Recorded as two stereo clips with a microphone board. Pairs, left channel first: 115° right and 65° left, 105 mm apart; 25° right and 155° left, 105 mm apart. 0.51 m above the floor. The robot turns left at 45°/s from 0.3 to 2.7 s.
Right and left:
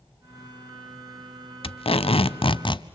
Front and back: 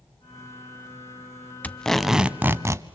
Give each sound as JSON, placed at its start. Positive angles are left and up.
{"t": 1.6, "sound": "tape being pulled", "azimuth_deg": -95, "distance_m": 0.7}